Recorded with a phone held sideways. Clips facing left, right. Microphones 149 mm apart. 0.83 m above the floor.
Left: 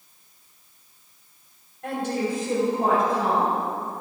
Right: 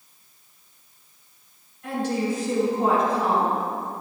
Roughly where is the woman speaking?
Left.